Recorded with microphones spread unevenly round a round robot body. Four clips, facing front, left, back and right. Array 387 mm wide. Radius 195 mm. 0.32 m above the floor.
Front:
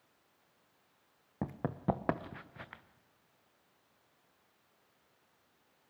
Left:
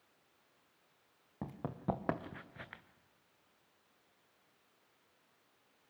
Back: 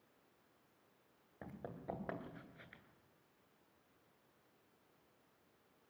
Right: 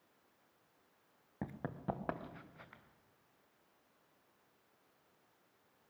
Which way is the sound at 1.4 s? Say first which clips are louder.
Left 2 dB, front 13 dB; 5° right.